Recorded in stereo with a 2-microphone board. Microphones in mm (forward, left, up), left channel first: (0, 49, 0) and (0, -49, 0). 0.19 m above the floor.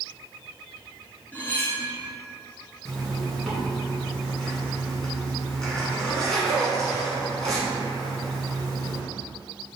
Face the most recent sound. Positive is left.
turn(degrees=5)  # may be behind; listen again after turning